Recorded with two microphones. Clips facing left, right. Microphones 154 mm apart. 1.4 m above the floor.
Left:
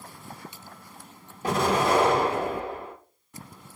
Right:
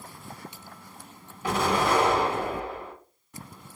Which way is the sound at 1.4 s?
40° left (ahead or behind).